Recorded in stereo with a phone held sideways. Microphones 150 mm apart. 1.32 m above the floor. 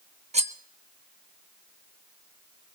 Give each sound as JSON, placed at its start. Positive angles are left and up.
{"t": 0.3, "sound": "cutlery clinking", "side_deg": -50, "distance_m": 0.7}